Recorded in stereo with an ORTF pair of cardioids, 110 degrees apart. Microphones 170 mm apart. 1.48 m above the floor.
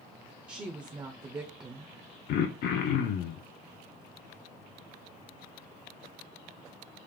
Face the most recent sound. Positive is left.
turn(degrees=65)